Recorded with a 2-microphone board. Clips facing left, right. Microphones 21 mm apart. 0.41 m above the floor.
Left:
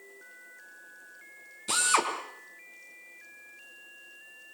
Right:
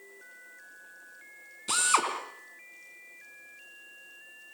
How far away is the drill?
About 4 m.